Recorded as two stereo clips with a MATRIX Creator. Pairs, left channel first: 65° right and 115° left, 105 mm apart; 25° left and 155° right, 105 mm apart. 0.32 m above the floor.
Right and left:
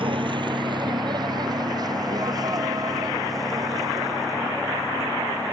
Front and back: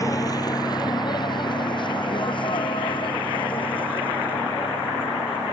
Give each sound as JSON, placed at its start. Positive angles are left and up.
{"t": 0.0, "sound": "a vehicle", "azimuth_deg": 80}